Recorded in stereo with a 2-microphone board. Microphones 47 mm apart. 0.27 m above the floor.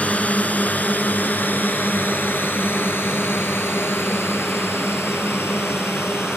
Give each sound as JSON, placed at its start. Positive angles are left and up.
{"t": 0.0, "sound": "a drone", "side_deg": 35}